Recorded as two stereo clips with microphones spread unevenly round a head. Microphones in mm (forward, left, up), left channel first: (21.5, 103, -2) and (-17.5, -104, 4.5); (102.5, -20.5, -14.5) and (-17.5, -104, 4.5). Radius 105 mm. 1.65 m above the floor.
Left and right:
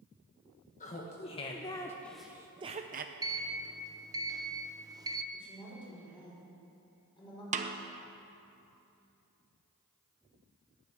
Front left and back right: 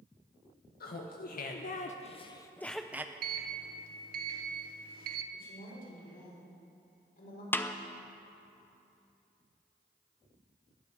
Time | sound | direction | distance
0.8 | laughter | 25° left | 1.3 m
3.2 | a sliding door | 175° right | 0.8 m
5.3 | a woman speaking | 10° left | 6 m
7.5 | a snare drum | 45° right | 0.9 m